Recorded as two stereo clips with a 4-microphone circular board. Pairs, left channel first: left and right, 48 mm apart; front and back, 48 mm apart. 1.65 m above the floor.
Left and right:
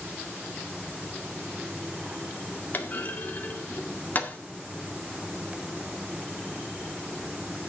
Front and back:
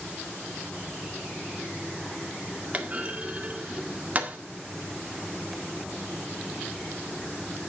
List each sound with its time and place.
2.7 s a clunk: 125° left, 1.8 m